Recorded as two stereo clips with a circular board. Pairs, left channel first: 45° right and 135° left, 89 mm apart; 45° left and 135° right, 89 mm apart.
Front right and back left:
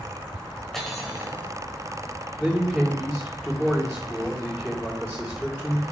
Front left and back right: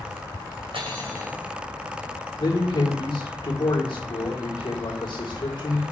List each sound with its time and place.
0.7 s cutlery clinking: 130° right, 2 m
2.4 s a man speaking: 45° left, 2.0 m